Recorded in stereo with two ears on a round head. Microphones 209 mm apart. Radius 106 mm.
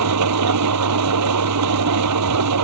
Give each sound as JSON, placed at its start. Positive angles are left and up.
{"t": 0.0, "sound": "an engine running", "side_deg": -80}